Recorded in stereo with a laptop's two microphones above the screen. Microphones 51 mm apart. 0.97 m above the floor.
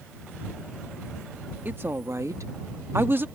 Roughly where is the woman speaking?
Right.